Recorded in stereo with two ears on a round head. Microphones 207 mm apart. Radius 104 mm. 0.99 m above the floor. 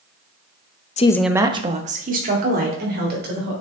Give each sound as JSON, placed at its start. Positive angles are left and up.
{"t": 1.0, "sound": "a woman speaking", "side_deg": 30, "distance_m": 0.6}